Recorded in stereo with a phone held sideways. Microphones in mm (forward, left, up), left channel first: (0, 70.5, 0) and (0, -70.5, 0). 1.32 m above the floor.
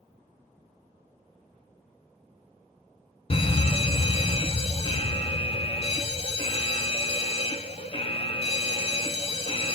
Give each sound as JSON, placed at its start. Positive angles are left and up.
{"t": 3.3, "sound": "a fire alarm", "side_deg": 45, "distance_m": 1.3}